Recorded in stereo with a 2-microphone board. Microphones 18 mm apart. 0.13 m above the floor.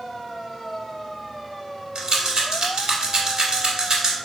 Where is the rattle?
45° right (ahead or behind), 1.0 m.